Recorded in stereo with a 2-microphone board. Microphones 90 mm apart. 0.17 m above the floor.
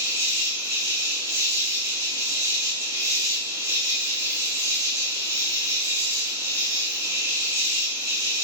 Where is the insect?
30° right (ahead or behind), 1.2 m.